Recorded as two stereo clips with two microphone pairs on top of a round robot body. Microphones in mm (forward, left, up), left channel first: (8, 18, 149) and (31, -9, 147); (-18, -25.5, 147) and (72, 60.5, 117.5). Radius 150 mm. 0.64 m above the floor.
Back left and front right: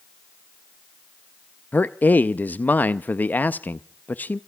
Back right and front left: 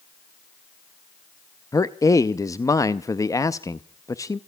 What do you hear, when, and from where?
1.7 s a man speaking: 150° left, 0.7 m